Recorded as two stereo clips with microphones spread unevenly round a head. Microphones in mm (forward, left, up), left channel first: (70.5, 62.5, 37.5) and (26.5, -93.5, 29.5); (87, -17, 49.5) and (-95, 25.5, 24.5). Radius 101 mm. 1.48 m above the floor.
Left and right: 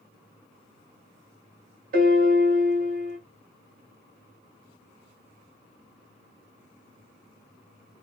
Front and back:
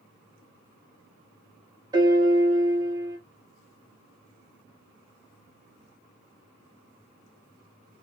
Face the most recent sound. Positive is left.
turn(degrees=-120)